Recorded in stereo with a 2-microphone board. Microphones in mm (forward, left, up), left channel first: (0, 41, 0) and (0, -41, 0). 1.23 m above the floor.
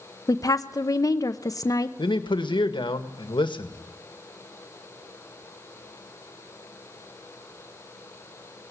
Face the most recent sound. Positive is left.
turn(degrees=75)  # may be behind; listen again after turning